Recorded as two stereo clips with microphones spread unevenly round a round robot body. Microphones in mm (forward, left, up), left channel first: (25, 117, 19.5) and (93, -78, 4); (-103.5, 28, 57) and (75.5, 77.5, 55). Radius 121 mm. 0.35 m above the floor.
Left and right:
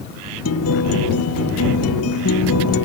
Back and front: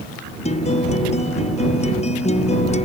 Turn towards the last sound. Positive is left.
turn(degrees=140)